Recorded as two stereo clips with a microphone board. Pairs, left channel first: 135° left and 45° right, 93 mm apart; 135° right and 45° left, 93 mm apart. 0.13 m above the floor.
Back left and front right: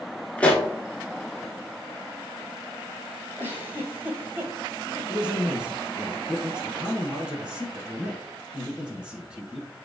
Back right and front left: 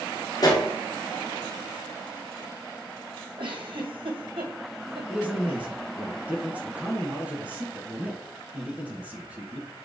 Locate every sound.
0.4 s a pop: 155° right, 1.0 m
3.4 s a giggle: 25° left, 1.2 m
5.1 s a man speaking: 10° left, 1.1 m